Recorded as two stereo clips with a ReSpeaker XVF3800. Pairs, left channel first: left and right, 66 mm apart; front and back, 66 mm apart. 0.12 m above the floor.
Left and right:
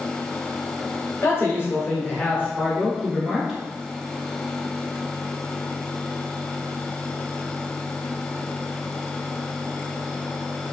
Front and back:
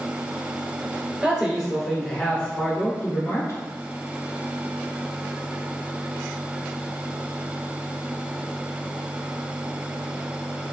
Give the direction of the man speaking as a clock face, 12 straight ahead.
8 o'clock.